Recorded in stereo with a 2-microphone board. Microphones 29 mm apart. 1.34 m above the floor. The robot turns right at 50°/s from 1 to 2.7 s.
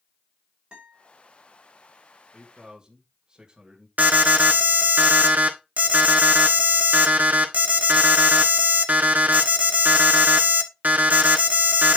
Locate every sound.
0.7 s a guitar: 35° right (ahead or behind), 5.5 m
2.3 s a man speaking: 5° right (ahead or behind), 1.7 m; by 3.9 s 25° right (ahead or behind), 1.7 m
4.0 s an alarm: 75° right (ahead or behind), 1.7 m